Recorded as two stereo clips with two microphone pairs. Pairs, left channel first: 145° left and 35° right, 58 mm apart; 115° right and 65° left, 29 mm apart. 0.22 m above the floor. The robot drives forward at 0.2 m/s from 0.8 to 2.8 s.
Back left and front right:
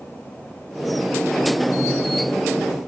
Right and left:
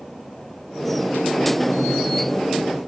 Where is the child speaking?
I don't hear a child speaking.